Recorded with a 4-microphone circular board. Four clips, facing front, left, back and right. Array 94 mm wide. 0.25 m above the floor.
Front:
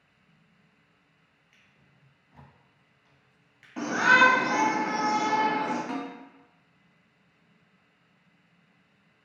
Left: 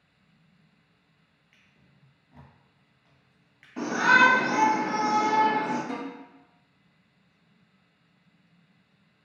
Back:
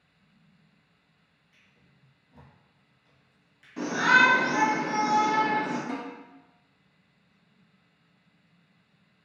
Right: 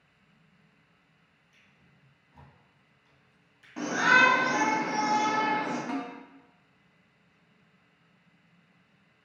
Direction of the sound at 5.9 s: 35° right.